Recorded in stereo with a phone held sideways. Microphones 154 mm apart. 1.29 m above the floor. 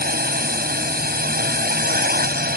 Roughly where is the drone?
Right.